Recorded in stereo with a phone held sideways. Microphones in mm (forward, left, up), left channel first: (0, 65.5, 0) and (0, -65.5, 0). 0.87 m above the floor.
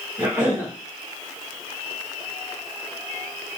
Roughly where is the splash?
I don't hear a splash.